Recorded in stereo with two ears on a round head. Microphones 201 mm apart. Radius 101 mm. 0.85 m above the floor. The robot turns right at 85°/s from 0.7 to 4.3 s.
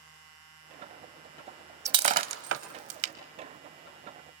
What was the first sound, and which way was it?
Breaking glass, 15° right (ahead or behind).